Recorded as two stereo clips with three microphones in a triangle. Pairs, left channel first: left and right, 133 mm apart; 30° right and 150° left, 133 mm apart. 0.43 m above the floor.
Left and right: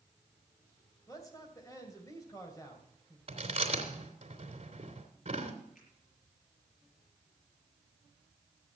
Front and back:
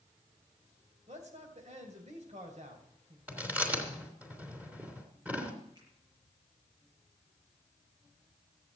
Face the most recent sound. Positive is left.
turn(degrees=95)